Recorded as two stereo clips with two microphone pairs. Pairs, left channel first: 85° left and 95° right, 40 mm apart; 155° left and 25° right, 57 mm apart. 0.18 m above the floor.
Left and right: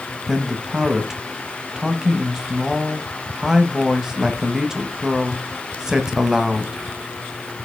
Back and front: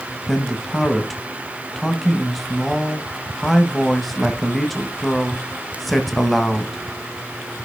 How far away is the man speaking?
About 1.0 m.